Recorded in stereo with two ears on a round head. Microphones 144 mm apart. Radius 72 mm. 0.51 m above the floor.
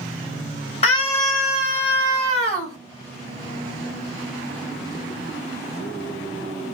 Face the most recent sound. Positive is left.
turn(degrees=35)  # may be behind; listen again after turning